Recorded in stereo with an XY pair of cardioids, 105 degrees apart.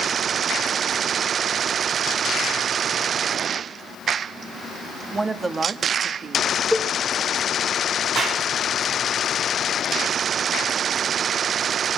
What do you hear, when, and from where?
5.1 s a woman speaking: 25° right, 2.5 m; by 6.6 s 60° right, 2.5 m
6.7 s a cowbell: 5° right, 2.5 m
8.2 s a clap: 65° right, 8.5 m